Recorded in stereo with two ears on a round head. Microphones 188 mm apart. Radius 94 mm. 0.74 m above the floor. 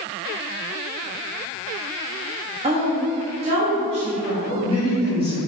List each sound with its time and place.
2.6 s a woman speaking: 25° right (ahead or behind), 1.2 m
4.5 s a man speaking: 25° right (ahead or behind), 1.8 m